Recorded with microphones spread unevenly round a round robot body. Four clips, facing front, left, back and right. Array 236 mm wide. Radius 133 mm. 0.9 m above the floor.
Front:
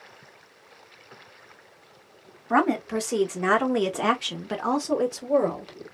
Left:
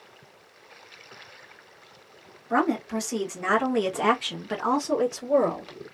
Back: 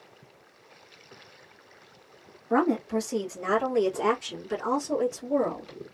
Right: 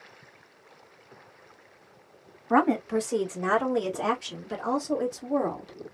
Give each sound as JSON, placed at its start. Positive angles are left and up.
{"t": 2.5, "sound": "a woman speaking", "azimuth_deg": -20, "distance_m": 1.5}